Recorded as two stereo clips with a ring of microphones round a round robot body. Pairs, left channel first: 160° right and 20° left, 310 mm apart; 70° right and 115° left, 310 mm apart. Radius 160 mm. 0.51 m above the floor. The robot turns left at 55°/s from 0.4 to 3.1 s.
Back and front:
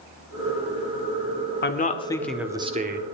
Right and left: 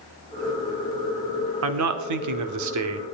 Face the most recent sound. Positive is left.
turn(degrees=70)